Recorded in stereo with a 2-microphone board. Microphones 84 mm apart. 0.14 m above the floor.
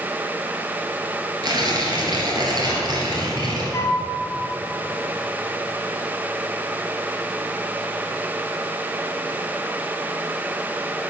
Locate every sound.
1.4 s tearing paper: 55° right (ahead or behind), 2.5 m
3.7 s a flute: 30° left (ahead or behind), 0.7 m